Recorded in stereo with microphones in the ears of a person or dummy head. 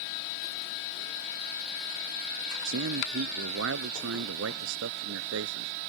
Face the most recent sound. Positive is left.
turn(degrees=-80)